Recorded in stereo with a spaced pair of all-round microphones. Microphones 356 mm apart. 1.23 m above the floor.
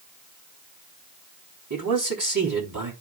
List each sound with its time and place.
1.7 s a man speaking: 65° right (ahead or behind), 3.5 m